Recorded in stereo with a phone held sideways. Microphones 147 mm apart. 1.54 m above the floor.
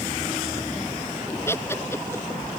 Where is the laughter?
15° left (ahead or behind).